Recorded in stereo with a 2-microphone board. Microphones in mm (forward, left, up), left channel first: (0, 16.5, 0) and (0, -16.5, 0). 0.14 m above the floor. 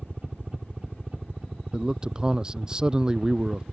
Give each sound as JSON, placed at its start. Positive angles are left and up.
{"t": 0.0, "sound": "a helicopter", "side_deg": -25}
{"t": 1.7, "sound": "a man speaking", "side_deg": -20}